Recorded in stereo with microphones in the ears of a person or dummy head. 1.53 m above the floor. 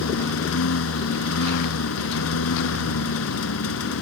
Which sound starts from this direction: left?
A lawn mower, at 0.0 s.